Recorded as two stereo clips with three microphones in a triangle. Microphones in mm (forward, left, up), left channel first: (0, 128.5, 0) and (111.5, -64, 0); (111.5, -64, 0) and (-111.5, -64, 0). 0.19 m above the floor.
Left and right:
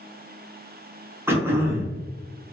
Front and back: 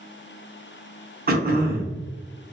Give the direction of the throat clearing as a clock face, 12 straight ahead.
5 o'clock.